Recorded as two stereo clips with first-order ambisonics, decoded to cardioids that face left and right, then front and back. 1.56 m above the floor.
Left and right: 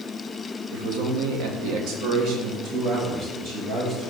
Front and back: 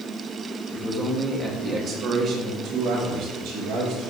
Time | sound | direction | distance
0.7 | a man speaking | 80° right | 1.2 m